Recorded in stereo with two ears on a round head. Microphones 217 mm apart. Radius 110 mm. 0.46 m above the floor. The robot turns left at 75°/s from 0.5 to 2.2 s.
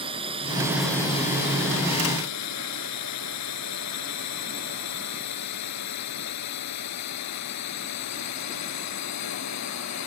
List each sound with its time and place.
0.0 s a drone: 25° right (ahead or behind); by 10.1 s 80° left